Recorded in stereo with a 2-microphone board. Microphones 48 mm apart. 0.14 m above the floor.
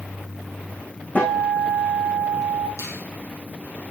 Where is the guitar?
35° left (ahead or behind), 6.5 m.